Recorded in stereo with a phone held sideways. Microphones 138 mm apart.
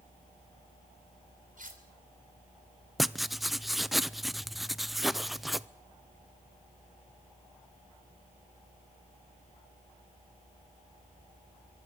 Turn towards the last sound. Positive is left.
turn(degrees=0)  # may be behind; listen again after turning